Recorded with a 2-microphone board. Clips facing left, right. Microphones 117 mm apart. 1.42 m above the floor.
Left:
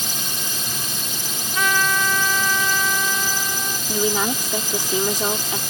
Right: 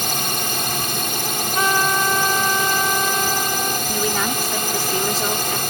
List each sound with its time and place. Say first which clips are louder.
0.0 s a drone: right 7 dB; 65° right (ahead or behind)
1.6 s a trumpet: right 2 dB; 35° right (ahead or behind)
3.9 s a woman speaking: left 5 dB; 15° left (ahead or behind)